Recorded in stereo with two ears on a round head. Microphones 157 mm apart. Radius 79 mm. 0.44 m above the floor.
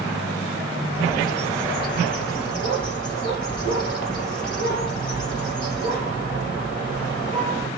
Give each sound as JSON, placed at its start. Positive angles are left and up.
{"t": 0.9, "sound": "a bird", "side_deg": 5, "distance_m": 3.5}